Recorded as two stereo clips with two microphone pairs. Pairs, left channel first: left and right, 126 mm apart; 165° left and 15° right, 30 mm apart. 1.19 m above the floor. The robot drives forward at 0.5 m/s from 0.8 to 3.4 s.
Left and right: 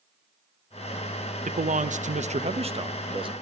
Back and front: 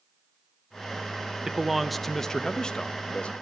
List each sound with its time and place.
1.5 s a man speaking: 90° right, 0.7 m; by 3.3 s 145° right, 1.2 m